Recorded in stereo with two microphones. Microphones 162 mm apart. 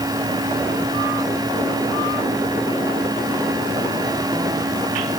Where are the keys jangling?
I don't hear keys jangling.